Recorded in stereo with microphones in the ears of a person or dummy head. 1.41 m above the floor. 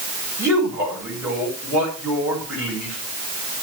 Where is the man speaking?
10° right (ahead or behind), 7 m.